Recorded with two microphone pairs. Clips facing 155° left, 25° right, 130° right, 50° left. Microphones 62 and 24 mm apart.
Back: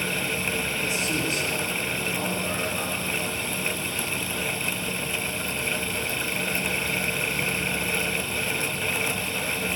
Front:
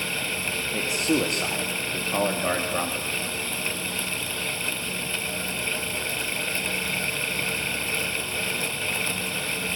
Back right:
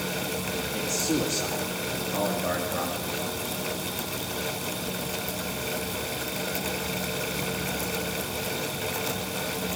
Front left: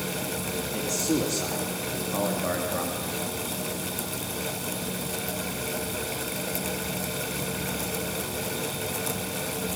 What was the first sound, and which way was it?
A man speaking, 35° right.